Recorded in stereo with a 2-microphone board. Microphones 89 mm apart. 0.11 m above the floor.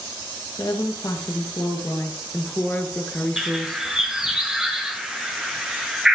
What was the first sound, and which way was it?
A woman speaking, 50° left (ahead or behind).